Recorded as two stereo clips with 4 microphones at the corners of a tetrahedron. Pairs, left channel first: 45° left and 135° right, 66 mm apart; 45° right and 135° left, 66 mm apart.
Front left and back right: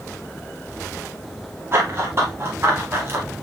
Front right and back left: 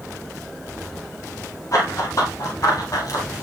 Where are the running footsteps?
85° right, 8 m.